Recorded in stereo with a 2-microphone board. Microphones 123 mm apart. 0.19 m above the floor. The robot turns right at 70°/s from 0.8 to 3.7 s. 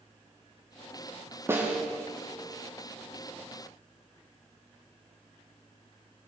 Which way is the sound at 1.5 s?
20° right (ahead or behind).